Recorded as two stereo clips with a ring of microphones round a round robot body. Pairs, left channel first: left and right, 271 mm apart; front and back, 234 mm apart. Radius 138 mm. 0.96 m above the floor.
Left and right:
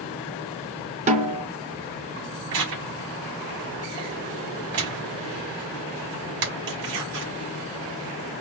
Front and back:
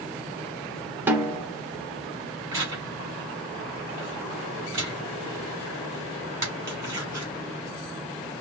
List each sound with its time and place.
1.1 s a snare drum: 110° right, 0.6 m
2.5 s tearing paper: 100° right, 4.5 m